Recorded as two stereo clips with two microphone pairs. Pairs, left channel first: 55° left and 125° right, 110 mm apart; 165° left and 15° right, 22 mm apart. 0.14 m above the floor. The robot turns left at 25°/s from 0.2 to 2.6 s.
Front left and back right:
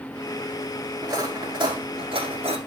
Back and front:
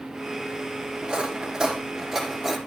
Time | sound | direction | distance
1.0 | cutlery clinking | 65° right | 4 m